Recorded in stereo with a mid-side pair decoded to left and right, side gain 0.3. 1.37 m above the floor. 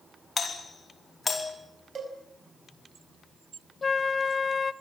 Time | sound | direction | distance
0.4 | a doorbell | 50° left | 4.5 m
1.9 | a cowbell | 50° right | 6 m
3.8 | a flute | 50° left | 1.0 m